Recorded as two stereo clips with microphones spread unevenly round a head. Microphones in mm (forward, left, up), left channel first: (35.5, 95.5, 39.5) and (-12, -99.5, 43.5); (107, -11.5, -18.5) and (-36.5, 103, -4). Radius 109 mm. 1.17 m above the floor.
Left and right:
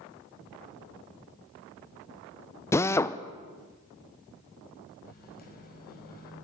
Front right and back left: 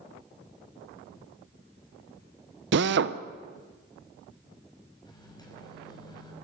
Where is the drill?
150° left, 0.8 m.